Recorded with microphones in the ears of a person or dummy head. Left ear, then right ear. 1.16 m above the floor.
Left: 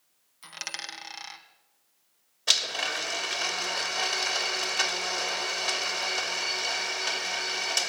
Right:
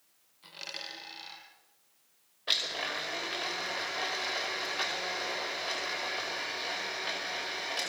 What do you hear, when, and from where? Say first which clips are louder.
0.4 s a dropped coin: left 4 dB; 60° left (ahead or behind), 2.5 m
2.5 s a blender: left 5 dB; 85° left, 2.5 m